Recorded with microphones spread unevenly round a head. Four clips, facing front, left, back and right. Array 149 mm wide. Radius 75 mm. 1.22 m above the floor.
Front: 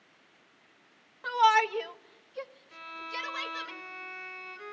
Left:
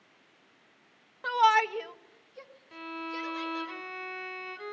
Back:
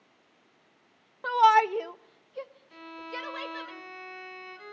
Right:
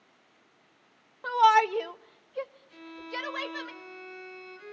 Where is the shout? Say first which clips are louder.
Right 3 dB, back 3 dB; 170° right, 0.6 m; by 3.7 s 90° right, 1.4 m.